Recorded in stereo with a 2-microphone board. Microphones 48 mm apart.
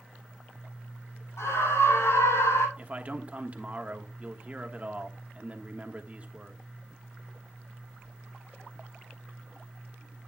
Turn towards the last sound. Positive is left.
turn(degrees=-30)  # may be behind; listen again after turning